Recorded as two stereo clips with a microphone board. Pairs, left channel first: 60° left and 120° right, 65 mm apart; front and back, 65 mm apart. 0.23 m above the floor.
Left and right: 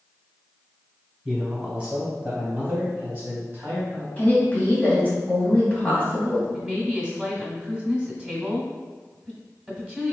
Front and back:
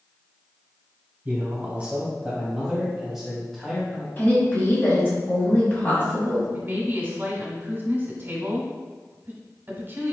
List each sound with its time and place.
1.2 s a man speaking: 175° right, 1.7 m; by 4.1 s 80° right, 1.9 m
4.2 s a woman speaking: 20° left, 1.7 m
6.5 s a woman speaking: straight behind, 1.2 m